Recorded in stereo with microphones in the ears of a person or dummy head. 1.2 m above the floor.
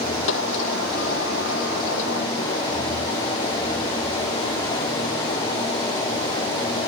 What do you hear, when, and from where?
0.3 s a sliding door: 80° left